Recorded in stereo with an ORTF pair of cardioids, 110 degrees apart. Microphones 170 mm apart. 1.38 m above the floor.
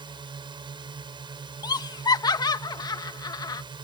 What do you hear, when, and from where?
0.0 s a drone: 30° right
1.6 s laughter: 25° left